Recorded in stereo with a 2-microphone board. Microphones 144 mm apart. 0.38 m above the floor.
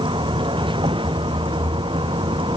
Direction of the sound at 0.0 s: 35° right (ahead or behind).